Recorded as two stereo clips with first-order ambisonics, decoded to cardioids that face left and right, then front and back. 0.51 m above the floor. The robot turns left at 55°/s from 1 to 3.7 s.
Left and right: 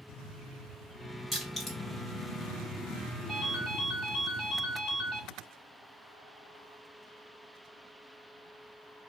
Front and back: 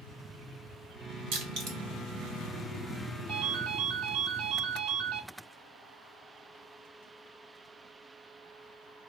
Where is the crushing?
170° right, 1.8 m; by 1.8 s 165° left, 1.8 m.